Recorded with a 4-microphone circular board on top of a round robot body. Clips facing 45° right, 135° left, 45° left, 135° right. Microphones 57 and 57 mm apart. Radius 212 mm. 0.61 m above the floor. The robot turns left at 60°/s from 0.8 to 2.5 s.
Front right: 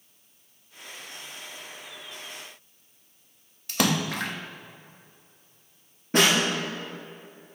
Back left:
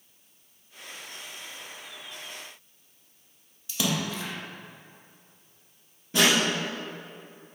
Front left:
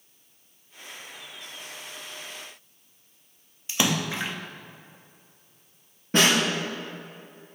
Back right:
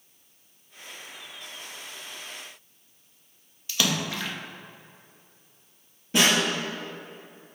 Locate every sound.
3.7 s a splash: 20° right, 0.7 m
6.1 s a snare drum: straight ahead, 3 m